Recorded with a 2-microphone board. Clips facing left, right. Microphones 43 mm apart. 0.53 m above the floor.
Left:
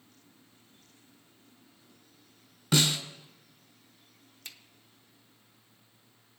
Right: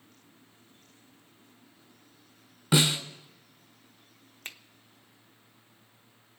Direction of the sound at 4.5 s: 45° right (ahead or behind).